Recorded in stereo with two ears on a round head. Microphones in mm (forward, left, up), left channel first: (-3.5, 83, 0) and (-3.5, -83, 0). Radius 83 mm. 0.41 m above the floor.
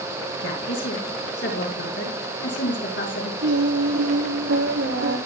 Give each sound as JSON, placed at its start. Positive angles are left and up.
{"t": 0.4, "sound": "a woman speaking", "side_deg": 60, "distance_m": 5.5}
{"t": 3.4, "sound": "singing", "side_deg": -70, "distance_m": 3.5}